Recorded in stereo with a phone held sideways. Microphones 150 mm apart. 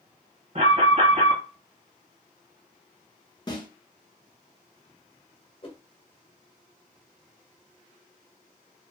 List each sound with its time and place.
0.6 s an alarm: 40° right (ahead or behind), 1.6 m
3.5 s a snare drum: 30° left (ahead or behind), 0.8 m
5.6 s a whoosh: 35° left (ahead or behind), 0.7 m